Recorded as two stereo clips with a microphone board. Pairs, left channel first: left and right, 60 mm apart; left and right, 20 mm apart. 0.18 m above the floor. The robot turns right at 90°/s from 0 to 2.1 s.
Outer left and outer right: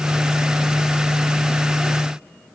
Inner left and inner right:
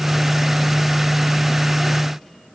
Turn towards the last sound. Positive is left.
No sound to turn to.